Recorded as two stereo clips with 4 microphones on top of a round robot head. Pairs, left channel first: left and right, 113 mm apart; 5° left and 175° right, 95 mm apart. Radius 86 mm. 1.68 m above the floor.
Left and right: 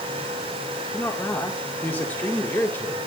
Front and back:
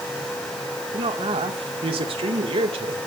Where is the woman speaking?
165° left, 2 m.